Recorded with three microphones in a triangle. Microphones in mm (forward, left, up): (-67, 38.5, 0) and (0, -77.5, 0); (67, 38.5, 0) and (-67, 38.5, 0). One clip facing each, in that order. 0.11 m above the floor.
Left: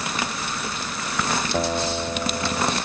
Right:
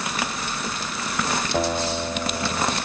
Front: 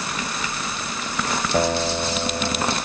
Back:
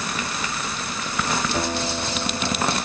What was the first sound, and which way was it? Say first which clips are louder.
A guitar: right 1 dB, front 4 dB; 35° left.